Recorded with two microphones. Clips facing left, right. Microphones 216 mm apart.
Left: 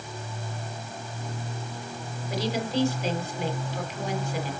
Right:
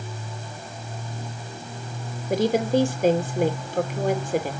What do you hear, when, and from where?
2.3 s a woman speaking: 50° right (ahead or behind), 2.5 m